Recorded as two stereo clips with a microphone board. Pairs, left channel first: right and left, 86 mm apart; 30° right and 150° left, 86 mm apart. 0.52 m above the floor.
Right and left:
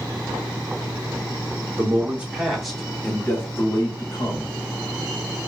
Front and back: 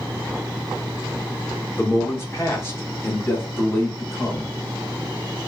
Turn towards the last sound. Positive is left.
turn(degrees=-100)